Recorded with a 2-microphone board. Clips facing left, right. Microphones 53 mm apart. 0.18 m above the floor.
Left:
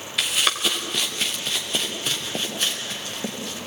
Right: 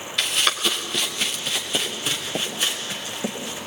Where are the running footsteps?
5° left (ahead or behind), 3.5 m; by 3.6 s 10° right (ahead or behind), 5.5 m.